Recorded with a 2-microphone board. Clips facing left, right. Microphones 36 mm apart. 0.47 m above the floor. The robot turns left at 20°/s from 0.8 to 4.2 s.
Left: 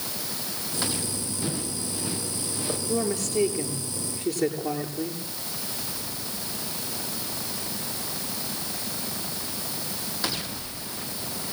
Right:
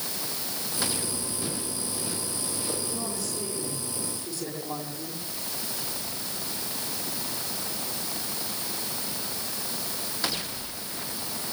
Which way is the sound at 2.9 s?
70° left (ahead or behind).